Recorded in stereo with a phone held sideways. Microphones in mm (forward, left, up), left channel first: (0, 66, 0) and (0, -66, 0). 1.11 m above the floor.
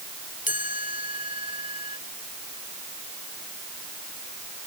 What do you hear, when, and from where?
0.5 s a chime: 85° left